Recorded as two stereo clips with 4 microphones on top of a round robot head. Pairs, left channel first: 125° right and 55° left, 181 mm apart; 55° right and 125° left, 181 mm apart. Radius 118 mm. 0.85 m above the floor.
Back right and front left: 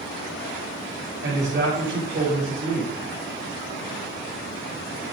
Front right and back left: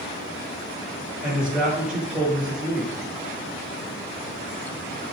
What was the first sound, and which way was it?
A man speaking, 35° left.